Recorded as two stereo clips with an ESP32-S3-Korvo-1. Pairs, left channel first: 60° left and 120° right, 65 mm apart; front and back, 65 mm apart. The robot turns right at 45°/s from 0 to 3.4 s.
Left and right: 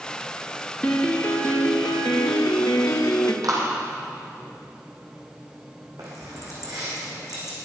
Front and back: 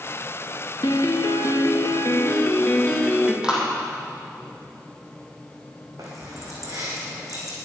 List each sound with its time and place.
0.8 s a piano: 15° right, 2.5 m; by 3.3 s 100° left, 2.5 m
3.4 s a clap: 100° right, 4 m
6.0 s keys jangling: 145° right, 5 m